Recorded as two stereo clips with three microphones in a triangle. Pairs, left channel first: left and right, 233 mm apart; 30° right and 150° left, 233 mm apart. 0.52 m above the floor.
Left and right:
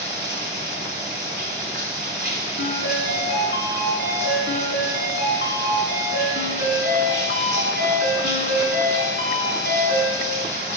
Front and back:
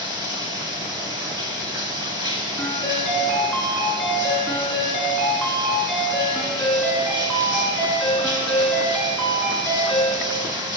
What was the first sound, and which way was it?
Running water, 140° right.